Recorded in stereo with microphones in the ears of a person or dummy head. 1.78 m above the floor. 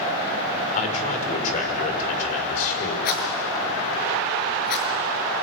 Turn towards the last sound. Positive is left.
turn(degrees=55)  # may be behind; listen again after turning